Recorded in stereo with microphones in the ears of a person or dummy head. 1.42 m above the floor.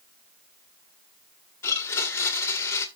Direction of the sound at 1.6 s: 15° left (ahead or behind).